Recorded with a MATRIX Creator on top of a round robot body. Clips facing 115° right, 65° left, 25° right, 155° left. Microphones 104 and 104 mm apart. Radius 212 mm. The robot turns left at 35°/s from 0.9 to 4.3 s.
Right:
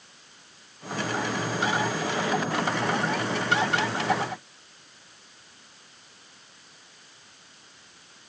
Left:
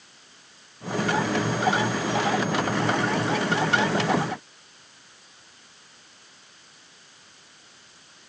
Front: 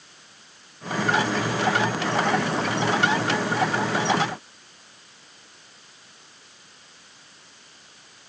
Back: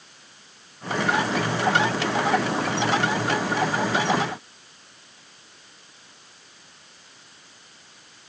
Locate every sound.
Only background noise.